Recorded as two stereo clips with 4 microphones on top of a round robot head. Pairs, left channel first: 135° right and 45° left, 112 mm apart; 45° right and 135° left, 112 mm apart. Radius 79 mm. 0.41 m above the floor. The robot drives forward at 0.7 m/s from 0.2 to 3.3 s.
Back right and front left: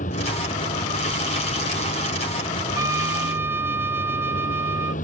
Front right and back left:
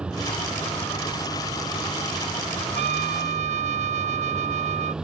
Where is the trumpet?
115° left; by 4.9 s 120° left.